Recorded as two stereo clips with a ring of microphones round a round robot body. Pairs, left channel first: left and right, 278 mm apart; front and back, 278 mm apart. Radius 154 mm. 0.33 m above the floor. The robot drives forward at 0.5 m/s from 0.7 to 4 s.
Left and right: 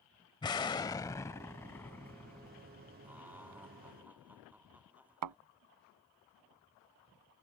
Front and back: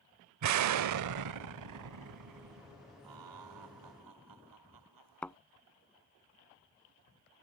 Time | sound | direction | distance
0.4 | an explosion | 165° left | ?
3.0 | laughter | 175° right | ?
5.2 | a thud | 85° right | ?